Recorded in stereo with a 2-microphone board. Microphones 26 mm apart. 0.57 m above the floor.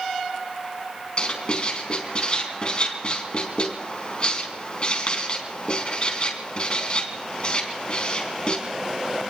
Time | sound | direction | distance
1.2 | writing | 40° left (ahead or behind) | 4 m